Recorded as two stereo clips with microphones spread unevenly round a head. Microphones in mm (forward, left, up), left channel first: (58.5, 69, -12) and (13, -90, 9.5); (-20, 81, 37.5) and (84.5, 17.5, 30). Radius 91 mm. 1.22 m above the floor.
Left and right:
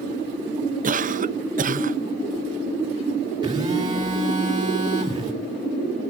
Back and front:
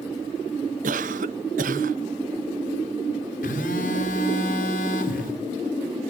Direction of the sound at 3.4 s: 175° right.